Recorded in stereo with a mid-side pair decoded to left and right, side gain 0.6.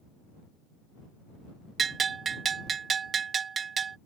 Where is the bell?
35° right.